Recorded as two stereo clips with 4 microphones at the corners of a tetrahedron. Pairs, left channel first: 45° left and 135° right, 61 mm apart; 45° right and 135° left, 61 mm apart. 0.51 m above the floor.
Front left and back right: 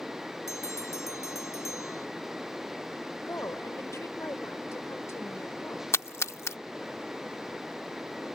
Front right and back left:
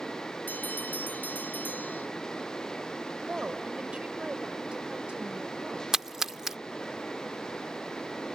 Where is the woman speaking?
65° left.